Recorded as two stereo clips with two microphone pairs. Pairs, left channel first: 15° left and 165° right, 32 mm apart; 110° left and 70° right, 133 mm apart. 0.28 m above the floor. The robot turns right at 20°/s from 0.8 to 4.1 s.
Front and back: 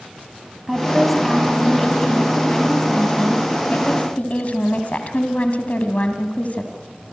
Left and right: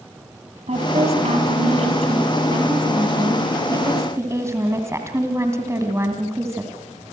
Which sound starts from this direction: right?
A woman speaking, at 0.7 s.